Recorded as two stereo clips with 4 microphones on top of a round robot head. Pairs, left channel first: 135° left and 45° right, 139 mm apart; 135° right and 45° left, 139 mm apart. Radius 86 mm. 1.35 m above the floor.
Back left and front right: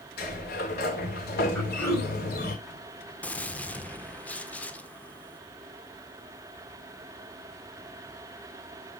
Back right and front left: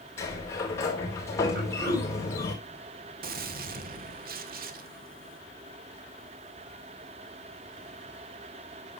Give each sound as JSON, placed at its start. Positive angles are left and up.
{"t": 0.2, "sound": "a sliding door", "azimuth_deg": 150, "distance_m": 3.5}
{"t": 1.6, "sound": "throat clearing", "azimuth_deg": 60, "distance_m": 6.0}
{"t": 3.2, "sound": "a gunshot", "azimuth_deg": 55, "distance_m": 1.3}